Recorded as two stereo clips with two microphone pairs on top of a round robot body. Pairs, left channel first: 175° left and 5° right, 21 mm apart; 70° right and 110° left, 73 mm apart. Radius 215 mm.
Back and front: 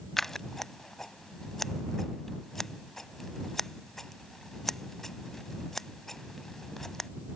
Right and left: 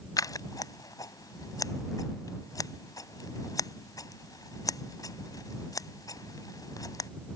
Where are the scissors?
115° right.